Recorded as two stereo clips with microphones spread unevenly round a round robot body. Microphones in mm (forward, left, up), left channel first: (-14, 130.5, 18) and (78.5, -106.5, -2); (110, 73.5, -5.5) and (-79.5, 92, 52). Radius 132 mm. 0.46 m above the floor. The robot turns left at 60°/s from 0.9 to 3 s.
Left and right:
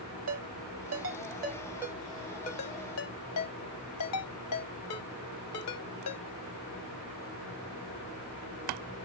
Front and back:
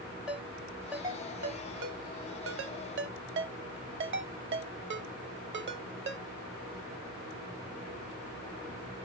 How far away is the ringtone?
About 0.9 m.